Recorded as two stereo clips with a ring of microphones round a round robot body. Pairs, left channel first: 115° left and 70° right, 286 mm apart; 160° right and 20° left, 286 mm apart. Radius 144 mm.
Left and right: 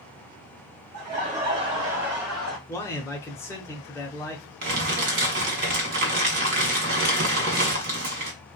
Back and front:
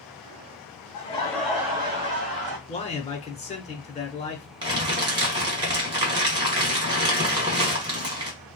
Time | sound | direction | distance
0.9 | laughter | 105° right | 1.5 m
2.7 | a man speaking | straight behind | 0.8 m
4.6 | crumpling | 45° right | 1.7 m